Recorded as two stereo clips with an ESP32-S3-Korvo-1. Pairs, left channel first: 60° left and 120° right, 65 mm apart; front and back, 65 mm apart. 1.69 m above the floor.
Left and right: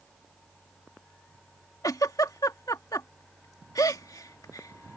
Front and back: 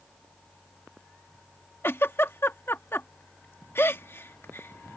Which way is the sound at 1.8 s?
50° left.